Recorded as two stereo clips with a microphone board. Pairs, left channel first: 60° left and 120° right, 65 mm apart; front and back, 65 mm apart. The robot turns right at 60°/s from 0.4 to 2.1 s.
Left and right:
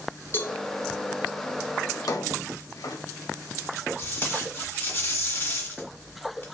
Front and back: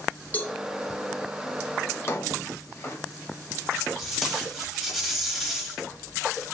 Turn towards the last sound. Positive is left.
turn(degrees=85)